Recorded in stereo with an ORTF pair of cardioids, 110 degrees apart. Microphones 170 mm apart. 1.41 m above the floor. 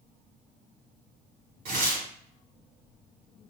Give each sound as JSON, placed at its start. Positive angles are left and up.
{"t": 1.6, "sound": "tearing paper", "azimuth_deg": -55, "distance_m": 1.2}